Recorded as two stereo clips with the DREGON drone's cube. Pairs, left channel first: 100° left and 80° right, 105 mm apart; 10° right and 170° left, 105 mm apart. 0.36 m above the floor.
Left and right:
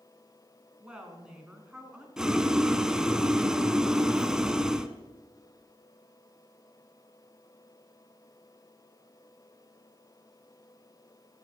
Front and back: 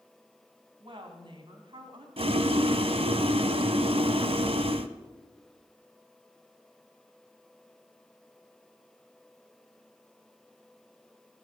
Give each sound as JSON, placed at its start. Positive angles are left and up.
{"t": 0.8, "sound": "a woman speaking", "azimuth_deg": -160, "distance_m": 3.0}
{"t": 2.2, "sound": "boiling", "azimuth_deg": -165, "distance_m": 0.7}